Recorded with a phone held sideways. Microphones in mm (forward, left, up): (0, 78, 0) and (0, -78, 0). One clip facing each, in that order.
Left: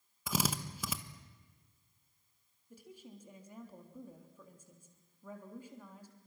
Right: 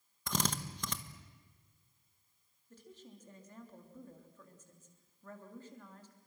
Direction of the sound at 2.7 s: 10° left (ahead or behind).